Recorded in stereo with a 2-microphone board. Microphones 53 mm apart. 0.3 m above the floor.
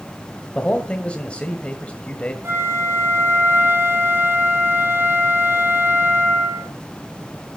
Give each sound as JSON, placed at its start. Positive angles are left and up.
{"t": 0.6, "sound": "a man speaking", "side_deg": 25, "distance_m": 1.4}
{"t": 2.4, "sound": "a flute", "side_deg": -60, "distance_m": 7.0}